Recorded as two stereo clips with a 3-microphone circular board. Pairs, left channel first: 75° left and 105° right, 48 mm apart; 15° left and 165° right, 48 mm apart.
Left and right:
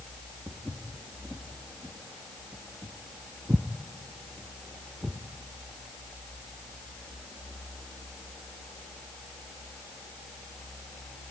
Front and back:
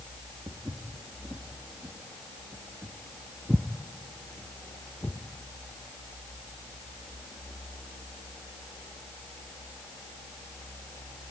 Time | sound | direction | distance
0.5 | footsteps | 155° right | 2.5 m